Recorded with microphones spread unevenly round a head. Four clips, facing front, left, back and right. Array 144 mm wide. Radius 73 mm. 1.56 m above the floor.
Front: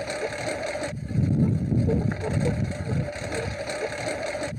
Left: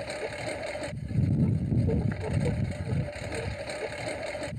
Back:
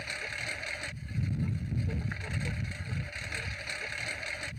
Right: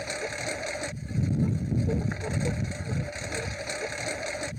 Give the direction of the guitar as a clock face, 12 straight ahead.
I don't hear a guitar.